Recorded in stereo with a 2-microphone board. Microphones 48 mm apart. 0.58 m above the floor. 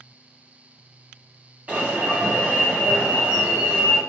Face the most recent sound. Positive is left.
turn(degrees=-30)  # may be behind; listen again after turning